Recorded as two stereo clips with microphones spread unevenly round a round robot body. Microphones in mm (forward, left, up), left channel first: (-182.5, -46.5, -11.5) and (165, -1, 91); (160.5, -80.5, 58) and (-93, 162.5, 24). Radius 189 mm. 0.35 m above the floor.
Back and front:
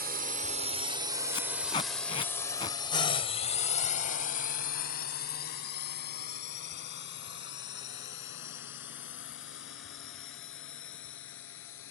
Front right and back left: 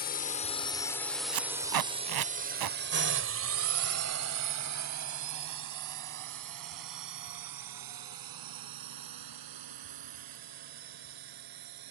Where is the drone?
55° right; by 11.9 s 140° left.